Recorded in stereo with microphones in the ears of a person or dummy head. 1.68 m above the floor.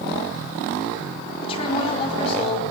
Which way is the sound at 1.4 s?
30° left (ahead or behind).